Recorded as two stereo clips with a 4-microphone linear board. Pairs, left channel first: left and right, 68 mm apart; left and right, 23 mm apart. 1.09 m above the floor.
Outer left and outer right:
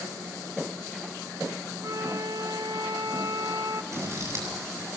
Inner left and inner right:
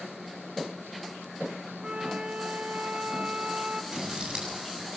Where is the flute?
60° right (ahead or behind), 1.0 m.